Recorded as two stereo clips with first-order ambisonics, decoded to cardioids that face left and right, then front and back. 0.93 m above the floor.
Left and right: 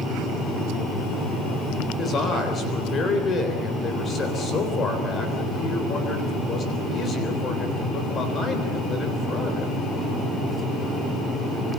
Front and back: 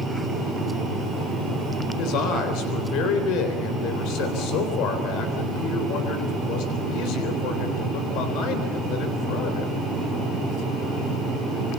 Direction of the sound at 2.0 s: 25° left.